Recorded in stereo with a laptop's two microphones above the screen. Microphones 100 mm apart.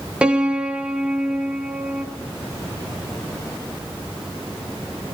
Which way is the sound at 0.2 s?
10° right (ahead or behind).